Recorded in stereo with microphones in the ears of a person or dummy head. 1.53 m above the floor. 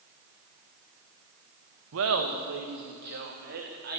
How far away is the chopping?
No chopping in this recording.